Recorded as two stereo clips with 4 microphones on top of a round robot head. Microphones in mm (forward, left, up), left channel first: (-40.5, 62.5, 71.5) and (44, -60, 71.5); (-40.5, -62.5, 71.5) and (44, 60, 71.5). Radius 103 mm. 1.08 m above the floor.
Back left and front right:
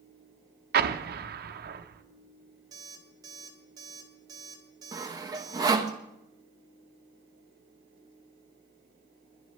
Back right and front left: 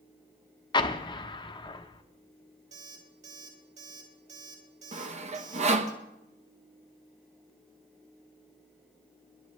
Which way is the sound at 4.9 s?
10° left.